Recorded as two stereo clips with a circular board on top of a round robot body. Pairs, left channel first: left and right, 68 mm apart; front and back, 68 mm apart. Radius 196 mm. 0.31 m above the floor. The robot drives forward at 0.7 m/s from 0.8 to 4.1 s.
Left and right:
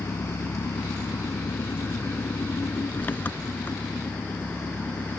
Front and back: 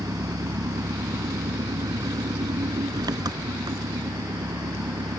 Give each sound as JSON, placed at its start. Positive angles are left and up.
{"t": 0.0, "sound": "an engine running", "azimuth_deg": 145}